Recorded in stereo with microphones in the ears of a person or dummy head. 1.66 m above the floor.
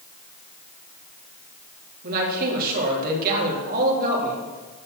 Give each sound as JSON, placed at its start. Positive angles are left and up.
{"t": 2.0, "sound": "a man speaking", "side_deg": -50, "distance_m": 4.0}